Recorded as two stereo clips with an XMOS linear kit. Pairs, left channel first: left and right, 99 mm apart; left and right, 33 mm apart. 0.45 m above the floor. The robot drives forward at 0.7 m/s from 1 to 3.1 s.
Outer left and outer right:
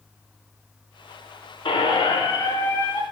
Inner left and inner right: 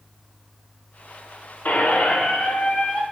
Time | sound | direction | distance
1.6 | a squeak | 60° left (ahead or behind) | 0.5 m